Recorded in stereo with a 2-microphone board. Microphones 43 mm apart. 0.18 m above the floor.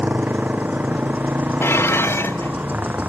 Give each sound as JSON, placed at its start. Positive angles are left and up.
{"t": 0.0, "sound": "a motorcycle", "side_deg": -45}
{"t": 1.6, "sound": "dishes clattering", "side_deg": 80}